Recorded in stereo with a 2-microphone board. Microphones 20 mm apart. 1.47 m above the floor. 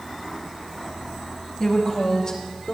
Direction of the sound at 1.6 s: 35° left (ahead or behind).